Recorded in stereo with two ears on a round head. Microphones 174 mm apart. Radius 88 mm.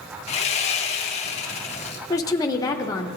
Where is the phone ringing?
No phone ringing in this recording.